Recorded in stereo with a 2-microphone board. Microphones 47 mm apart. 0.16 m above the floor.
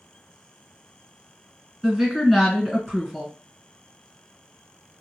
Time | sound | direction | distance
1.8 | a woman speaking | centre (ahead or behind) | 2 m